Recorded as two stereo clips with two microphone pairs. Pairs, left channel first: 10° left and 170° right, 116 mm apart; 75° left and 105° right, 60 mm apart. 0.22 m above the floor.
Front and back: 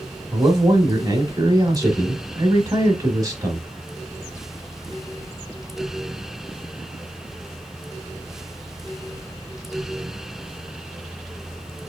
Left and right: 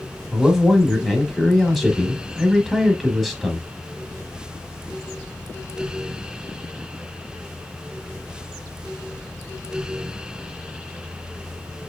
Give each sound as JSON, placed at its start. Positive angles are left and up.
{"t": 0.3, "sound": "a man speaking", "azimuth_deg": 170, "distance_m": 1.1}